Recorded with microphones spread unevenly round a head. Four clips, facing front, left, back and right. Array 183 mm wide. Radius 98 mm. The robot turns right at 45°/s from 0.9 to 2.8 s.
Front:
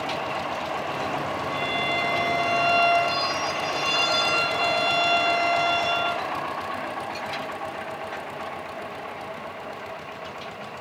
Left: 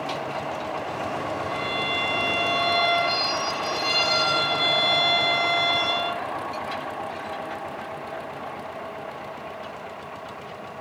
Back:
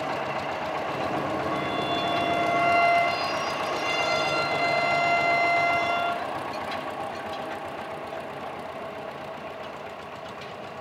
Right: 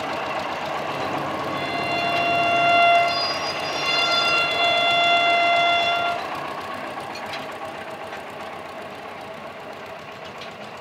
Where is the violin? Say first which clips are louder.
Right 3 dB, even; 140° right, 0.7 m; by 6.3 s 80° right, 0.7 m.